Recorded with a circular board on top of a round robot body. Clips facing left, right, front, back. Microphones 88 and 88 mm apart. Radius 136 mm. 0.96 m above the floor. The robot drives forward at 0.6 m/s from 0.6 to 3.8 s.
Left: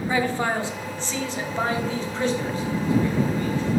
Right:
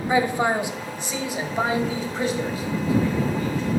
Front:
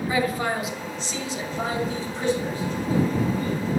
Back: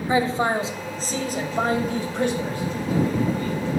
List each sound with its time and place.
0.1 s a man speaking: 150° right, 0.9 m; by 3.6 s 175° right, 2.5 m